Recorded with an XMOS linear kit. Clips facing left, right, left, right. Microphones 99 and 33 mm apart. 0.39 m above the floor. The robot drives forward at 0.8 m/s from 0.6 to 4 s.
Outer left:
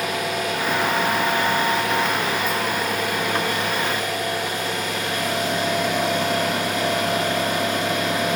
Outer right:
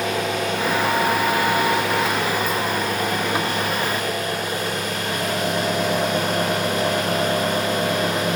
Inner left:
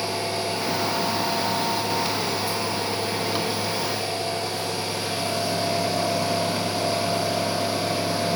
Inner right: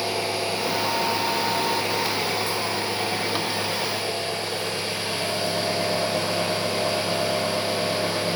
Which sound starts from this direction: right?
An engine running, at 0.0 s.